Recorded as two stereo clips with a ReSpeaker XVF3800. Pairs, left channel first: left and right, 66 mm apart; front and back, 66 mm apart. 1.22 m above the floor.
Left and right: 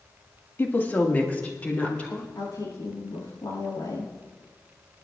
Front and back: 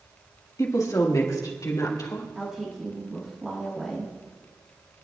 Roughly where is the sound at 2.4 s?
Left.